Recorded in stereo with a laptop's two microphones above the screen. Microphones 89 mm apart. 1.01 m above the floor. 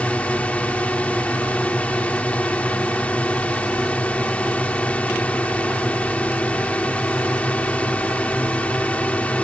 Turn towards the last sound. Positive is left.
turn(degrees=15)  # may be behind; listen again after turning